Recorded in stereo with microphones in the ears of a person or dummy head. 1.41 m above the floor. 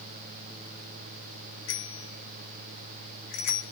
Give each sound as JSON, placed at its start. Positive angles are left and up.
{"t": 1.7, "sound": "a bicycle bell", "side_deg": 75, "distance_m": 2.0}